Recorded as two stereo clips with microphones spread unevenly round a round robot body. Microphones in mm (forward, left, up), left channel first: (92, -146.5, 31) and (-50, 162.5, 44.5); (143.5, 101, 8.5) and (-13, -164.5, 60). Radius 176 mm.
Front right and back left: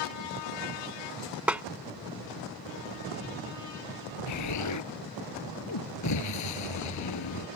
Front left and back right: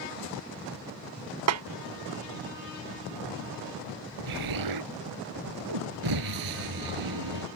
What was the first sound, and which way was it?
A snare drum, 160° right.